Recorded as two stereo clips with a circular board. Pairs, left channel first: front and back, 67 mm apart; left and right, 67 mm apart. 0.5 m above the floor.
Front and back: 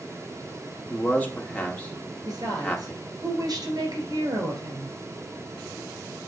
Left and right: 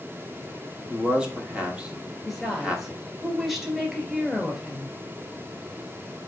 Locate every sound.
0.9 s a man speaking: 35° right, 1.3 m
2.2 s a woman speaking: 175° right, 2.5 m